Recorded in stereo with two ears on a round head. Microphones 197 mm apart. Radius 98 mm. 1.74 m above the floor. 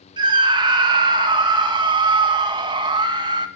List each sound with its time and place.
0.2 s a scream: 20° right (ahead or behind), 2.5 m